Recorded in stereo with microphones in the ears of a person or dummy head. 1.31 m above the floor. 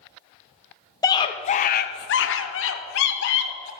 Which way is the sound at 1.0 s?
15° left (ahead or behind).